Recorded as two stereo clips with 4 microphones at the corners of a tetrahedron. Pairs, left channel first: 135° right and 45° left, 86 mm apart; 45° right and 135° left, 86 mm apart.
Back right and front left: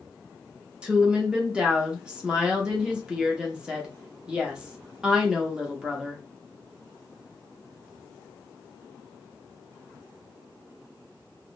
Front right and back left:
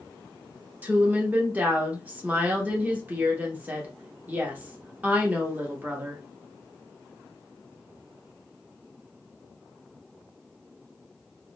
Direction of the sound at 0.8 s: 110° left.